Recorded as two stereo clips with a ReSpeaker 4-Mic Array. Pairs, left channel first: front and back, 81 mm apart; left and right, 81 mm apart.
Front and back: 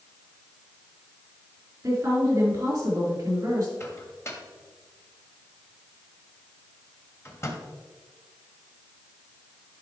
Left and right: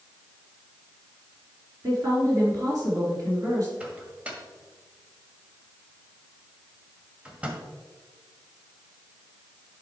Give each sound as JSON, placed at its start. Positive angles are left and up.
{"t": 1.8, "sound": "a woman speaking", "azimuth_deg": -130, "distance_m": 4.0}
{"t": 3.8, "sound": "a microwave", "azimuth_deg": -25, "distance_m": 1.5}